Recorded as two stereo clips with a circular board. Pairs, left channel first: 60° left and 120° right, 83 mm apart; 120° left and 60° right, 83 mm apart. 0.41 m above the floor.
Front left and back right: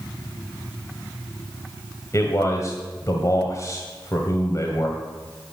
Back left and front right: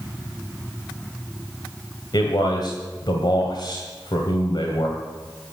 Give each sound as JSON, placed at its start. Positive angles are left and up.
{"t": 2.1, "sound": "a man speaking", "azimuth_deg": 105, "distance_m": 1.9}